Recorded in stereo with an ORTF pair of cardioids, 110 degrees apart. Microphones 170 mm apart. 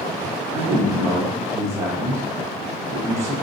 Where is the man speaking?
15° right, 1.0 m.